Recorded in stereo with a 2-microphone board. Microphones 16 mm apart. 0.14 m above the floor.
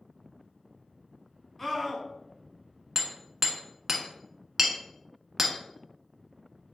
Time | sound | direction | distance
1.6 | a scream | 15° left (ahead or behind) | 1.1 m
3.0 | hammering | 20° right (ahead or behind) | 0.9 m